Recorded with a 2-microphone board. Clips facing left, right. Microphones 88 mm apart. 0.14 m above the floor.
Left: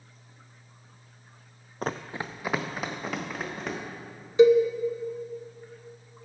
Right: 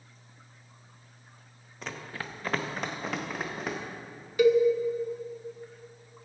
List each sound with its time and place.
1.8 s running footsteps: 50° left (ahead or behind), 0.5 m; by 3.8 s 5° right (ahead or behind), 2.5 m
4.4 s a cowbell: 25° left (ahead or behind), 0.6 m